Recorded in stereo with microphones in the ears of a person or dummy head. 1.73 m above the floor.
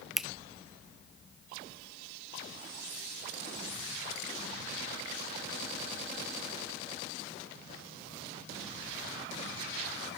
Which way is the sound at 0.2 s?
5° right (ahead or behind).